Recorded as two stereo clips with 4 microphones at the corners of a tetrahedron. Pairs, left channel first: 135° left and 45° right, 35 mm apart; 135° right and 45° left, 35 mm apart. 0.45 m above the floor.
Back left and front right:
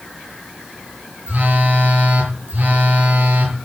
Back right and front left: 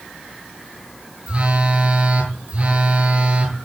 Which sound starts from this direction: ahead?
A phone buzzing, at 1.3 s.